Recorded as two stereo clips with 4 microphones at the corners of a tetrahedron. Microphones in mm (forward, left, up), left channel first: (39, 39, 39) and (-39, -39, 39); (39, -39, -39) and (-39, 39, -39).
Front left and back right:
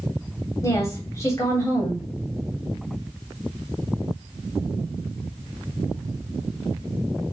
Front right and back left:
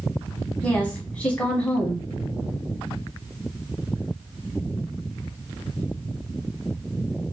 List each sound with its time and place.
0.6 s a woman speaking: 20° left, 1.7 m